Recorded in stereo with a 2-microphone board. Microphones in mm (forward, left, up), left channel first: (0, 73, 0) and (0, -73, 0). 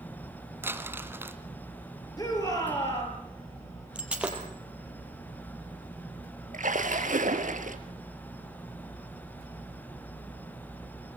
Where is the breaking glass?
10° right (ahead or behind), 4 m.